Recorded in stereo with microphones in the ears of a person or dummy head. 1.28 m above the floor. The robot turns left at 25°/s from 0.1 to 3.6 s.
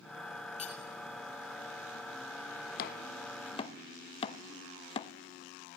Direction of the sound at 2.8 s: 55° left (ahead or behind).